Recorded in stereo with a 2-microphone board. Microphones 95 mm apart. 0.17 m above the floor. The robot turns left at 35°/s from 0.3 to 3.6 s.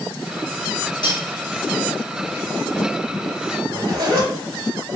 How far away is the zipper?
About 1.8 m.